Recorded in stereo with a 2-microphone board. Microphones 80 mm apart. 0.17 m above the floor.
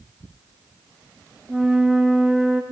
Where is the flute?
10° right (ahead or behind), 3.5 m.